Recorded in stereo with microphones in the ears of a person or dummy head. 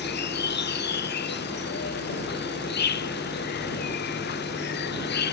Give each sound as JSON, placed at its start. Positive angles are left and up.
{"t": 0.0, "sound": "an insect", "side_deg": 50}